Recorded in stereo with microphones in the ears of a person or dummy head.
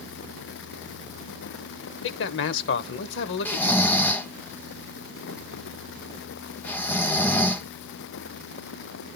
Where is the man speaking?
65° left (ahead or behind), 1.2 m.